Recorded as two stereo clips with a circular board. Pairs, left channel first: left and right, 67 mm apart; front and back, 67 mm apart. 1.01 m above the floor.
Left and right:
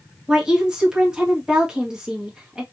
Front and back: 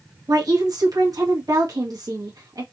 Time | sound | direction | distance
0.3 | a woman speaking | 170° right | 1.4 m